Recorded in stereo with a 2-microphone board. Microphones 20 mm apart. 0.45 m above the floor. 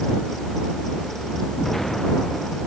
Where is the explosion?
15° left (ahead or behind).